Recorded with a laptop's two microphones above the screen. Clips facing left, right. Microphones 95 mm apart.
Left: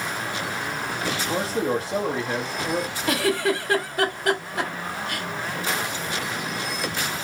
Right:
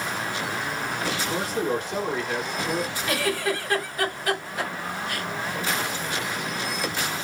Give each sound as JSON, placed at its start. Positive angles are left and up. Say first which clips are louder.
{"t": 1.3, "sound": "a man speaking", "louder": "left 3 dB", "side_deg": 30, "distance_m": 1.2}
{"t": 3.1, "sound": "a giggle", "louder": "left 5 dB", "side_deg": 70, "distance_m": 1.2}